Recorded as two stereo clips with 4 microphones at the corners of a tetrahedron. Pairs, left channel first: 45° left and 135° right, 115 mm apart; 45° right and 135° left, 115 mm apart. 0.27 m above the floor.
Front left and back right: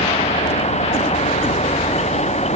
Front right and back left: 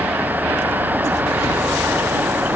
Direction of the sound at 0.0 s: 60° left.